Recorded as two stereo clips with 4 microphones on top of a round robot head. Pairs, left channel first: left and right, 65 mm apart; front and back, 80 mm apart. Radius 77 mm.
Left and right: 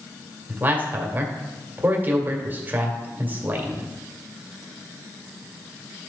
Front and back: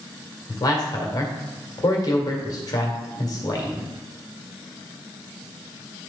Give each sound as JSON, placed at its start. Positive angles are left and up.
{"t": 0.5, "sound": "a man speaking", "azimuth_deg": -35, "distance_m": 1.9}